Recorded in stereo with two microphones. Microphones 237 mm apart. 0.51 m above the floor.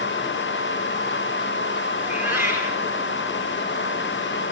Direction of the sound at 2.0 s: 10° right (ahead or behind).